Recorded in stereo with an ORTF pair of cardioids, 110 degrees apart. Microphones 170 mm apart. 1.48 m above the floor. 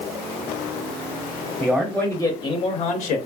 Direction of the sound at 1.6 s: 5° right.